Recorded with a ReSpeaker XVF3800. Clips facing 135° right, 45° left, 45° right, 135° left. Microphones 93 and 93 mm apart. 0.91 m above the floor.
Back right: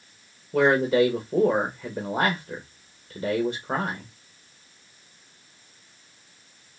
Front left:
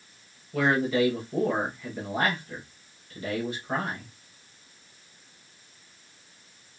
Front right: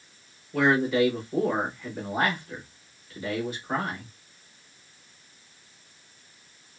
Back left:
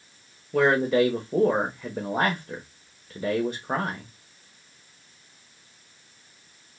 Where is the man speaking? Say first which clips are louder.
Back right 5 dB, back left 2 dB; 170° left, 1.1 m.